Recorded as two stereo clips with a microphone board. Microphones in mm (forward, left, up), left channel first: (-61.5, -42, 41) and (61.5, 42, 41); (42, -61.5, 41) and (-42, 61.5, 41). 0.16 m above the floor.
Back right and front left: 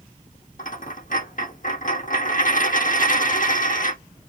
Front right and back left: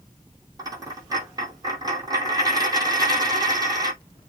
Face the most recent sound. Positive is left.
turn(degrees=-170)